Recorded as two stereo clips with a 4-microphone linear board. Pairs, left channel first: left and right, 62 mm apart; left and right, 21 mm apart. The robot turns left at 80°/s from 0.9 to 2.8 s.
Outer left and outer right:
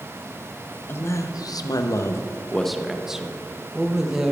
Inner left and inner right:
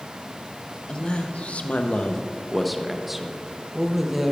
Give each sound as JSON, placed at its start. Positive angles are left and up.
{"t": 0.9, "sound": "a man speaking", "azimuth_deg": 145, "distance_m": 0.8}